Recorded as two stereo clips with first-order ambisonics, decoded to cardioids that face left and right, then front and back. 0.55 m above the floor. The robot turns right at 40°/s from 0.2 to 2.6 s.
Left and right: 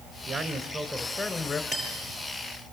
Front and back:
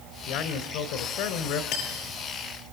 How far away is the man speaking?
About 3 m.